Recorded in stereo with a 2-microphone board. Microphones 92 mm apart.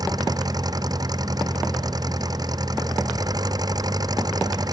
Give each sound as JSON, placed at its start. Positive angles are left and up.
{"t": 0.0, "sound": "an engine running", "side_deg": -45}